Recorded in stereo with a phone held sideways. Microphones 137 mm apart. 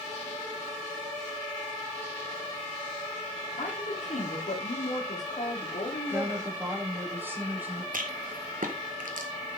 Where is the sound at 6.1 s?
15° right (ahead or behind), 2.5 m.